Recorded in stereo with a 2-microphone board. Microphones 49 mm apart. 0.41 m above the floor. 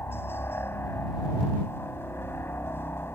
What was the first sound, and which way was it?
A helicopter, 50° left (ahead or behind).